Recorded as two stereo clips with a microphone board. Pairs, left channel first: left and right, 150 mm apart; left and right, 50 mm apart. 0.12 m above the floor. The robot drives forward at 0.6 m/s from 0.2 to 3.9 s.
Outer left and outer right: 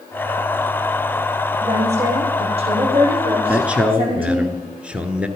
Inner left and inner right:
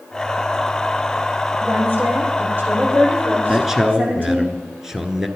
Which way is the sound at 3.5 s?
10° right (ahead or behind).